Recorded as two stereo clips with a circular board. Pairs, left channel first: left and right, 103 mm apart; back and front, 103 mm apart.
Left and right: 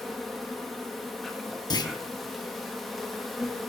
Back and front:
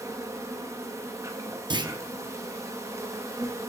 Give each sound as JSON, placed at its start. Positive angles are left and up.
{"t": 0.0, "sound": "an insect", "azimuth_deg": 5, "distance_m": 0.9}
{"t": 1.7, "sound": "a clunk", "azimuth_deg": 40, "distance_m": 0.5}